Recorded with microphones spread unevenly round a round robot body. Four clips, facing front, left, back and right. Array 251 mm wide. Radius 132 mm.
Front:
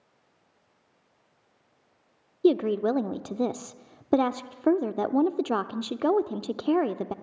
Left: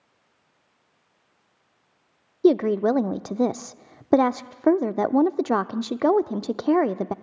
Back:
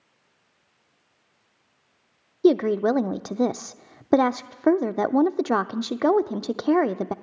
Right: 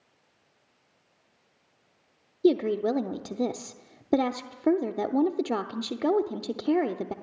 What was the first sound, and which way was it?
A woman speaking, 130° left.